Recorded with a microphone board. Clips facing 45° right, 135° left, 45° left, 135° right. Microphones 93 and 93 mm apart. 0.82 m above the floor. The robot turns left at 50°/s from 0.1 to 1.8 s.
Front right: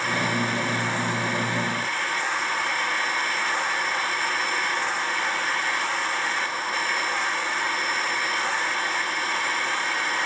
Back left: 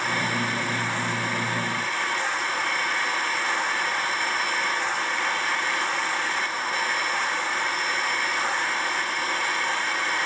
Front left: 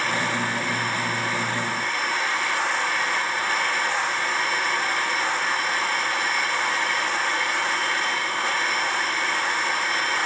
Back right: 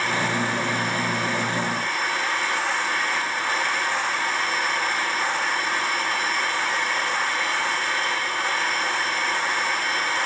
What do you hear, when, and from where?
Only background noise.